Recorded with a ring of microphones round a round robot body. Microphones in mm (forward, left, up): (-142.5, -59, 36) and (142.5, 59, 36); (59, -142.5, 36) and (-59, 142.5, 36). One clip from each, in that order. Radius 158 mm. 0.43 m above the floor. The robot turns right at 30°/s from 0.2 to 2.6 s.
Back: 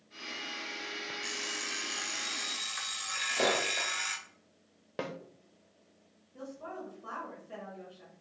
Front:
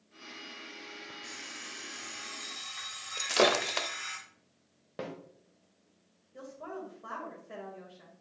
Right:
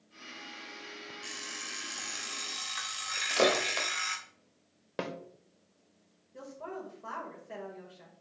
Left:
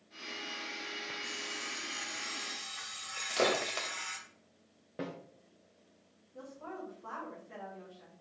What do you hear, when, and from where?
1.2 s an alarm clock: 145° right, 1.3 m; by 4.2 s 100° right, 1.3 m
3.2 s breaking glass: 15° left, 0.8 m
5.0 s a snare drum: 90° right, 1.0 m
6.3 s a woman speaking: 35° right, 2 m